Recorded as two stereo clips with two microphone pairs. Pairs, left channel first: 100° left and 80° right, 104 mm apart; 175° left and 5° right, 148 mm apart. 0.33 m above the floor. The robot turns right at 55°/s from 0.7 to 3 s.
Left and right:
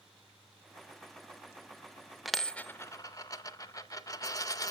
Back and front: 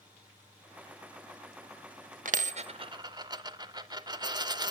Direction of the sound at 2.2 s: 10° left.